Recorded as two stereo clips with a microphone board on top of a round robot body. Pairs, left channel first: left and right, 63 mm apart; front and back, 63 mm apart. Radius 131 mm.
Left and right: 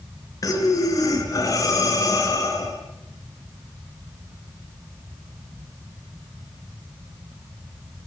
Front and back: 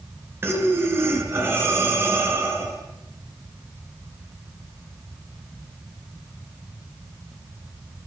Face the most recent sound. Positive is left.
turn(degrees=125)